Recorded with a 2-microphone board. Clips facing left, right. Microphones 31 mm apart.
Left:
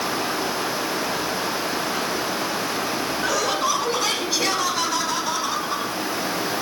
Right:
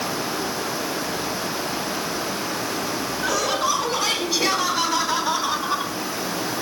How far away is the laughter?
About 6 m.